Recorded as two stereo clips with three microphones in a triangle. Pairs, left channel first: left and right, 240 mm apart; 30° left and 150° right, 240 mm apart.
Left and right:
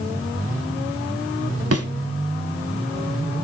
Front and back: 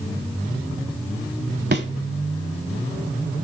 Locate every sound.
1.7 s a thud: 105° right, 1.0 m